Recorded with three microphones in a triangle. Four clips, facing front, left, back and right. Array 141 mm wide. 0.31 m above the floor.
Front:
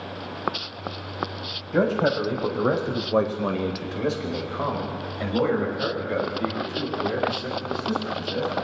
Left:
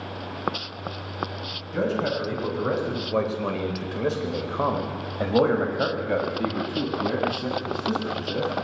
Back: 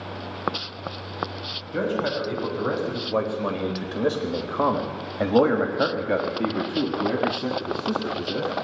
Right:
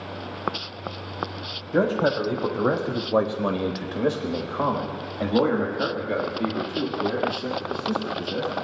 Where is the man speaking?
50° right, 2 m; by 8.6 s 150° left, 3.5 m.